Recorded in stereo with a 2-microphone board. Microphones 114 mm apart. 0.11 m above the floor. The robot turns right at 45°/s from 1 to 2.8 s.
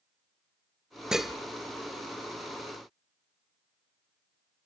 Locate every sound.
1.1 s dishes clattering: 5° right (ahead or behind), 1.3 m; by 1.3 s centre (ahead or behind), 1.3 m